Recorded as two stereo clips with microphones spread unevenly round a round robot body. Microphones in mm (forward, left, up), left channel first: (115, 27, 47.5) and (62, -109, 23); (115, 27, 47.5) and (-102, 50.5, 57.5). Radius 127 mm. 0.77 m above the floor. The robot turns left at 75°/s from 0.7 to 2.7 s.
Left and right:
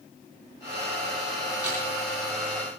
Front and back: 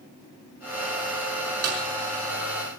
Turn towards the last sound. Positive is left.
turn(degrees=85)